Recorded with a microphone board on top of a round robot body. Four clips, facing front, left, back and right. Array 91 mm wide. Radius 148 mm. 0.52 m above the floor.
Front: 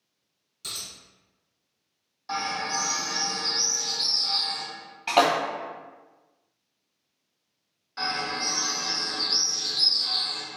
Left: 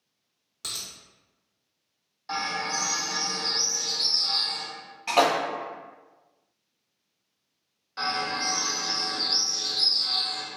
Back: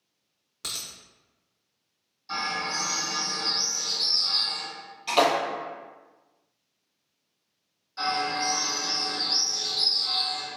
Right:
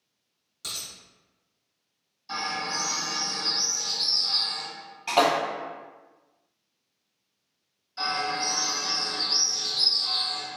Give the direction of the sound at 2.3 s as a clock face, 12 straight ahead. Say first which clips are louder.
Left 1 dB, front 2 dB; 10 o'clock.